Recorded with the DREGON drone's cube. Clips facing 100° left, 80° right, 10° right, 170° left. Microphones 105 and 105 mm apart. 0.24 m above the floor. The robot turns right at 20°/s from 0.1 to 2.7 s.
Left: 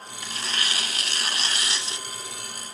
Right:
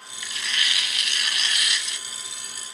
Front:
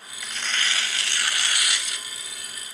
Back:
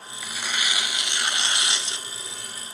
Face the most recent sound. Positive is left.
turn(degrees=140)